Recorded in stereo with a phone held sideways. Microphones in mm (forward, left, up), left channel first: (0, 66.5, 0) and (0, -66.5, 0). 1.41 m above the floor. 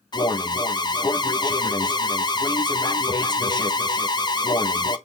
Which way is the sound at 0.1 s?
30° left (ahead or behind).